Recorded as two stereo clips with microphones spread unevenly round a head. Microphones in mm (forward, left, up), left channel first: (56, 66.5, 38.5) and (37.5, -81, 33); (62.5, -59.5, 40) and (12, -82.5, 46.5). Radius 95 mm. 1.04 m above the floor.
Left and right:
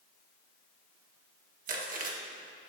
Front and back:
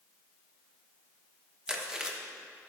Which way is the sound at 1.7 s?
75° right.